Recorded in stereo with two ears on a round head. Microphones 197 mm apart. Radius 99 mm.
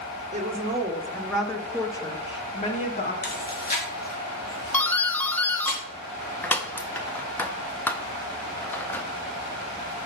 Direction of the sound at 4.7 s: 10° left (ahead or behind).